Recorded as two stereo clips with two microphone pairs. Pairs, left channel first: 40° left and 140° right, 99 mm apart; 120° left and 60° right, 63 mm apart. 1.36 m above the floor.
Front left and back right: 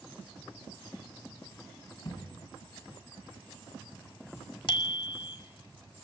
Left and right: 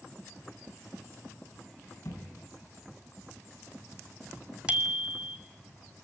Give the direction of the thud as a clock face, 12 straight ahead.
9 o'clock.